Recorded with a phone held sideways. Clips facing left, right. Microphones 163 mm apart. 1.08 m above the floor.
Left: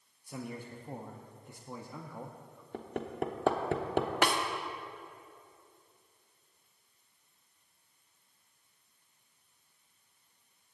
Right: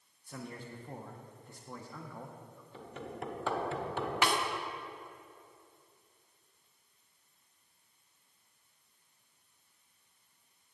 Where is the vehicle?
I don't hear a vehicle.